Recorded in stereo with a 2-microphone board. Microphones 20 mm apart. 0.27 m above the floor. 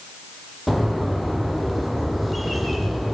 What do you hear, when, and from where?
0.7 s a bird: centre (ahead or behind), 6 m